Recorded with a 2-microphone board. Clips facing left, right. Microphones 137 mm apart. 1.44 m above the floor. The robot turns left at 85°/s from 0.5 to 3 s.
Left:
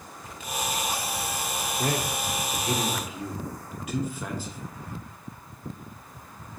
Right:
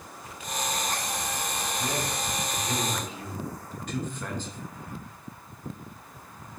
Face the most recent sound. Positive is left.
turn(degrees=5)  # may be behind; listen again after turning